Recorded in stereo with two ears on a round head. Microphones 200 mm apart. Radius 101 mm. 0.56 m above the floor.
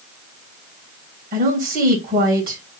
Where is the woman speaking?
40° right (ahead or behind), 3 m.